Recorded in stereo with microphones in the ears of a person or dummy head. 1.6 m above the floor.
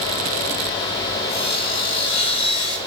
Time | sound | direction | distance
1.3 | sawing | 30° left (ahead or behind) | 5.5 m